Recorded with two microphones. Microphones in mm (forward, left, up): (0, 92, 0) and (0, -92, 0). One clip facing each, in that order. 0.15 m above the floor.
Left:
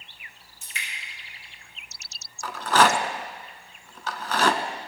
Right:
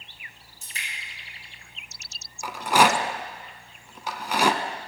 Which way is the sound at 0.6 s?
40° right (ahead or behind).